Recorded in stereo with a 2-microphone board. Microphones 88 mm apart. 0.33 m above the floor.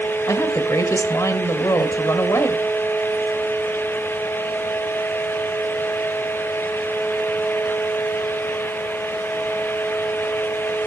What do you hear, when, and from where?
0.3 s a woman speaking: 35° left (ahead or behind), 1.4 m